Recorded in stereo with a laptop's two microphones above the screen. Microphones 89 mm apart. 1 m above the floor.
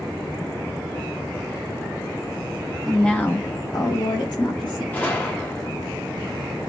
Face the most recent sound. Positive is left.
turn(degrees=20)  # may be behind; listen again after turning